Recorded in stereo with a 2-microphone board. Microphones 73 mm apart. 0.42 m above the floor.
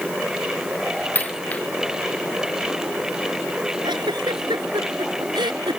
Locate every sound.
1.1 s a dropped coin: 20° left (ahead or behind)
3.8 s a giggle: 80° right